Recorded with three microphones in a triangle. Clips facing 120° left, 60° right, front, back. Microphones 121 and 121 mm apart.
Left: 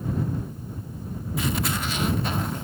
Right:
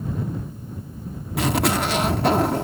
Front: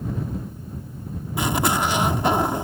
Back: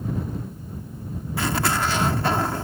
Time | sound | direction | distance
1.4 | a zipper | 70° right | ?